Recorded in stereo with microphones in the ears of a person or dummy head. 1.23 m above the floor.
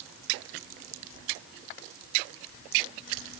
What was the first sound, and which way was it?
Only background noise.